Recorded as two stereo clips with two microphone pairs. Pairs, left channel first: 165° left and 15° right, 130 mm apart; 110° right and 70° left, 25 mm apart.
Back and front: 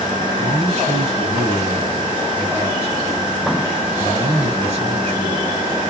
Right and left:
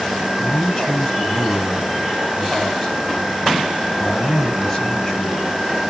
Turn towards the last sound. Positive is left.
turn(degrees=-50)